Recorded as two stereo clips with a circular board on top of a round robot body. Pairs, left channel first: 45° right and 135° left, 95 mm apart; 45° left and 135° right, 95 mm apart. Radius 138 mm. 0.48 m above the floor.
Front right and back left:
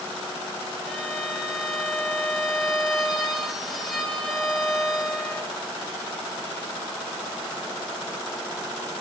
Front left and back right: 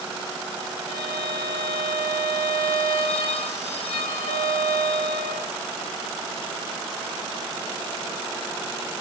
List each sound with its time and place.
0.9 s a violin: 45° left, 2 m